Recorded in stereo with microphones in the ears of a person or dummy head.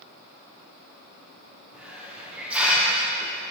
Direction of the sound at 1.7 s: 5° right (ahead or behind).